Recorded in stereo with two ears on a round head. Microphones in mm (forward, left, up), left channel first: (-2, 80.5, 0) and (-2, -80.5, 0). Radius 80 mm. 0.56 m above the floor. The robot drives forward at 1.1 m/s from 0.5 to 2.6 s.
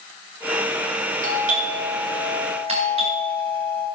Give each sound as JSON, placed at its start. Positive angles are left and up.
{"t": 1.2, "sound": "a doorbell", "side_deg": -45, "distance_m": 3.5}